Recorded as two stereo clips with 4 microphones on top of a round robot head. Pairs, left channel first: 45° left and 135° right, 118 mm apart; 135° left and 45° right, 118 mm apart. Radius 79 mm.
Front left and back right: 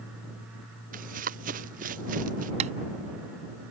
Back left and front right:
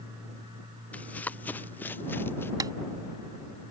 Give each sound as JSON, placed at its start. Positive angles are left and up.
{"t": 0.9, "sound": "running footsteps", "azimuth_deg": -145}
{"t": 2.6, "sound": "tapping", "azimuth_deg": -105}